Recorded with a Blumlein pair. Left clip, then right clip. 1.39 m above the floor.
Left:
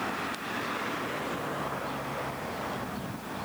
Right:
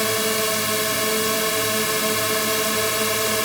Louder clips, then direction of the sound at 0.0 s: Right 12 dB; 45° right.